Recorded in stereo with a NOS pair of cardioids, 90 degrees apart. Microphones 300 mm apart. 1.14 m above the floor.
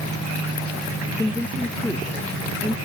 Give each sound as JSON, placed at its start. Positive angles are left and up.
{"t": 1.2, "sound": "a woman speaking", "azimuth_deg": 5}